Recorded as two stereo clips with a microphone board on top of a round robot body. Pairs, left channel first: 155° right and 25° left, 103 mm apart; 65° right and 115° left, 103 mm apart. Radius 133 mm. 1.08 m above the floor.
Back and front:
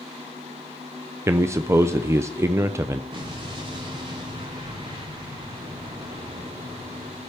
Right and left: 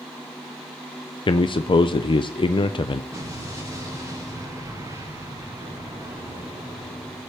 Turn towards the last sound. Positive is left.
turn(degrees=60)